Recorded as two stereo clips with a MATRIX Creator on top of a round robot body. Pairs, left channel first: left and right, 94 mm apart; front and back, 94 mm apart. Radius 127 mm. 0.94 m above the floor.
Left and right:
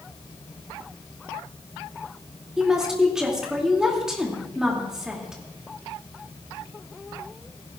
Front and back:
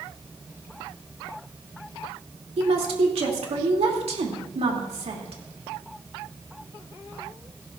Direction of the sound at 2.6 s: 175° right.